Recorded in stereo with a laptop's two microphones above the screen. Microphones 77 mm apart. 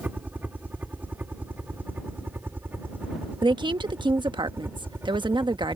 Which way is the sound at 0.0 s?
20° right (ahead or behind).